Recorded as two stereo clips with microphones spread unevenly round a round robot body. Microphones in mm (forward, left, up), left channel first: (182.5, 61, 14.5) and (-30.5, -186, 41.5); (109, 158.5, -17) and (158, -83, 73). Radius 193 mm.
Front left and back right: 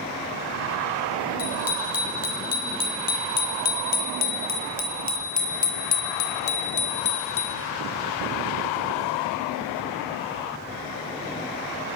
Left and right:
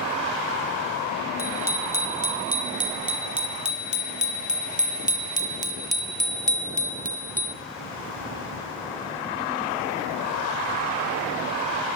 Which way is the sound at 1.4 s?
5° left.